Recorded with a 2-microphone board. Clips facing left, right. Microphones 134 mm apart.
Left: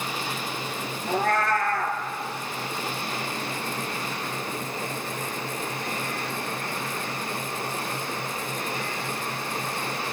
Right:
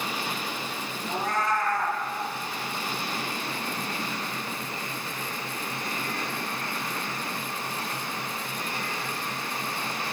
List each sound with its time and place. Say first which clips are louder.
1.1 s a cat meowing: left 4 dB; 70° left (ahead or behind), 1.1 m